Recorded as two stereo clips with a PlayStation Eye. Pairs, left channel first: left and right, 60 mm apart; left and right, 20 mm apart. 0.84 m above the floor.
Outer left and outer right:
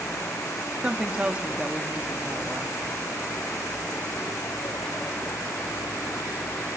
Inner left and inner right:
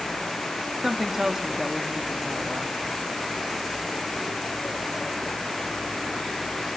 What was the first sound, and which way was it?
A woman speaking, 20° right (ahead or behind).